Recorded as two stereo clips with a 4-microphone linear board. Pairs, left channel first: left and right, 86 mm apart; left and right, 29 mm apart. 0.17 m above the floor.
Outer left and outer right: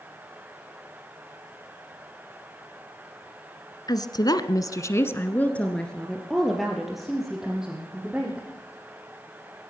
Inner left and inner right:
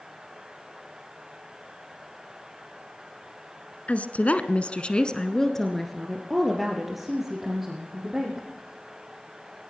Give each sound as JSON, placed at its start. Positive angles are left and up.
{"t": 3.9, "sound": "a woman speaking", "side_deg": 50, "distance_m": 1.9}